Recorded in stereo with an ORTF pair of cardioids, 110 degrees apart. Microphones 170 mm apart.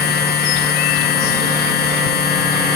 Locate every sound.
0.0 s a machine running: 65° left